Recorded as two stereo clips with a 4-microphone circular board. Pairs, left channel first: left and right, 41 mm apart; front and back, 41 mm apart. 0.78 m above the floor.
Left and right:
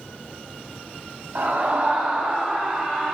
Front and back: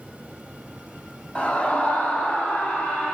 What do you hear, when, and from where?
1.4 s a scream: 50° right, 1.2 m; by 3.1 s 10° right, 2 m